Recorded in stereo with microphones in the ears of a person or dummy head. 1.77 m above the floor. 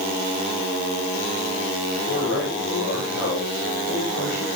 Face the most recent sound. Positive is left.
turn(degrees=80)